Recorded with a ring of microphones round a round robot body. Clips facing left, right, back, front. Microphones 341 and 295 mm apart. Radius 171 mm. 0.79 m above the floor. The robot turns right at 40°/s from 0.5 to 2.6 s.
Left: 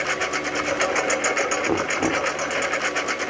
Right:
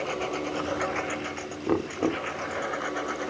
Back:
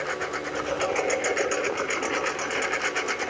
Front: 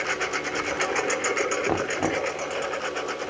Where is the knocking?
Straight ahead; by 2.3 s 25° left.